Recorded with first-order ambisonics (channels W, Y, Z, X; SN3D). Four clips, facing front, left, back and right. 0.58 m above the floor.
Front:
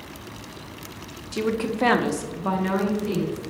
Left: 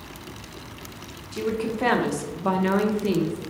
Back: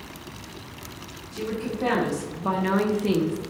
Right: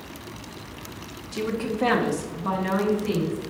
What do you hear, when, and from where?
1.3 s a woman speaking: 5° right, 1.1 m; by 3.4 s 140° left, 1.0 m